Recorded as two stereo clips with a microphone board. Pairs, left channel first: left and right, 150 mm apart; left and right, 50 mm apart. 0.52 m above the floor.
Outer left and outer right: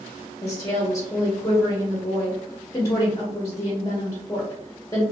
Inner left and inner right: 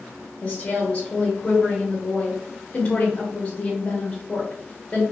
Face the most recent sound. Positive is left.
turn(degrees=25)  # may be behind; listen again after turning